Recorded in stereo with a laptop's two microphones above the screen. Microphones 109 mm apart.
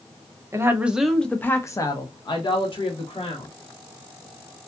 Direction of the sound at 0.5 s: 25° right (ahead or behind).